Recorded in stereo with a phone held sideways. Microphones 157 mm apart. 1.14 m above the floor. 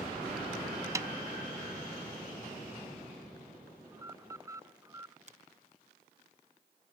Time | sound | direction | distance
0.9 | a snare drum | 20° right (ahead or behind) | ?
3.9 | an alarm | 20° right (ahead or behind) | ?
5.3 | a finger snap | 45° right (ahead or behind) | ?